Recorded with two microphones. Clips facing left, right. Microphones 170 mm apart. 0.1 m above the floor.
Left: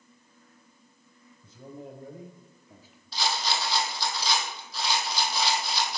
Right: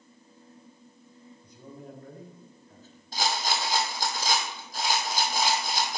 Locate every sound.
1.4 s a man speaking: 25° left (ahead or behind), 2 m; by 3.0 s 10° left (ahead or behind), 1.6 m
3.1 s a rattle: 45° right (ahead or behind), 1.7 m